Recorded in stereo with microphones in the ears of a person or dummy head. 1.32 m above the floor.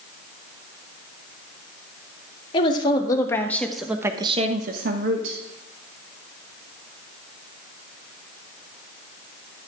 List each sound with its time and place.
2.5 s a woman speaking: 30° left (ahead or behind), 1.9 m; by 5.4 s 75° right (ahead or behind), 1.2 m